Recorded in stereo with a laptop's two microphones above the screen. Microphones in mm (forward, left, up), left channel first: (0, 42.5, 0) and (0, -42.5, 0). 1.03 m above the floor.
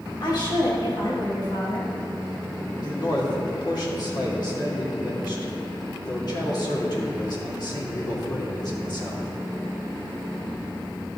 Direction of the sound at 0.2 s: 55° left (ahead or behind).